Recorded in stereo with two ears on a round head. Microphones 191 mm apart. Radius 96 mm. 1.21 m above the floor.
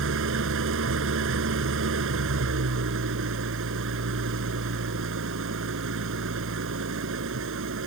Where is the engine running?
70° right (ahead or behind).